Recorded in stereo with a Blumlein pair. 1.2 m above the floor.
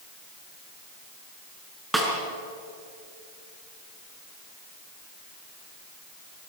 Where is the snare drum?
5° right, 5.5 m.